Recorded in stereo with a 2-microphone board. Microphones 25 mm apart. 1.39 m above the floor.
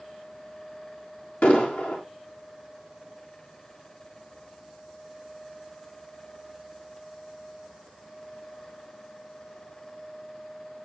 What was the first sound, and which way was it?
An explosion, 85° left.